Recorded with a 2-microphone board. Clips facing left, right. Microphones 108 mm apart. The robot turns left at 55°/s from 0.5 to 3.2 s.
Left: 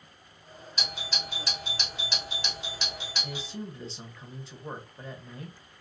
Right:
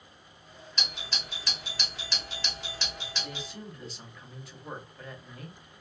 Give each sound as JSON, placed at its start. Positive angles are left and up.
{"t": 0.8, "sound": "a doorbell", "side_deg": 5, "distance_m": 1.8}
{"t": 3.2, "sound": "a man speaking", "side_deg": 30, "distance_m": 1.0}